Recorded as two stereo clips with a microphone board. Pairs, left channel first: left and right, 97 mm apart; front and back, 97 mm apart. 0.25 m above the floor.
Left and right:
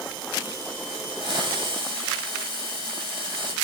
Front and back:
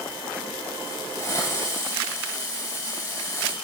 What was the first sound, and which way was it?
A hiss, 55° right.